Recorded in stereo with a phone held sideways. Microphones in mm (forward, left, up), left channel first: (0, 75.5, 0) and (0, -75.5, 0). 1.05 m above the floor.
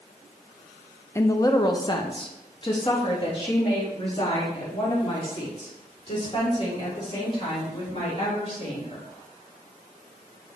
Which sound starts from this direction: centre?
A woman speaking, at 1.1 s.